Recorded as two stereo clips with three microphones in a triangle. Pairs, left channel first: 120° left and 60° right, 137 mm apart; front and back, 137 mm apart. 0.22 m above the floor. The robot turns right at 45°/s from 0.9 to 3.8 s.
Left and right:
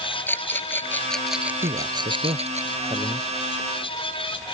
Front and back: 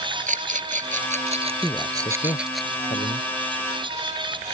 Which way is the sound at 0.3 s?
165° right.